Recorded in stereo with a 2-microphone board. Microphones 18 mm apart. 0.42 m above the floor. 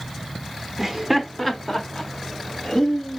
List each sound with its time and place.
0.8 s laughter: 20° right (ahead or behind), 0.8 m; by 3.2 s 30° left (ahead or behind), 2 m